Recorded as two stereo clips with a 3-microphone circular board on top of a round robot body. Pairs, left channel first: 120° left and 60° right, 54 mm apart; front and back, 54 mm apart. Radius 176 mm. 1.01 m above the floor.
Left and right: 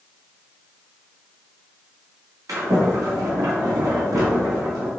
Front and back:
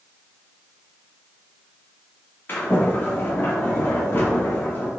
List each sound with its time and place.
2.5 s a sliding door: 55° right, 2 m